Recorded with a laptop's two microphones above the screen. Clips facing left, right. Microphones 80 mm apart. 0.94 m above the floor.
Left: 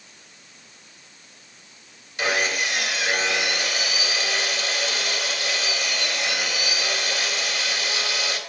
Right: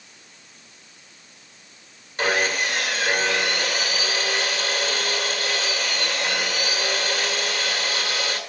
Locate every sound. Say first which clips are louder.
2.2 s sawing: right 2 dB; 40° right (ahead or behind), 2 m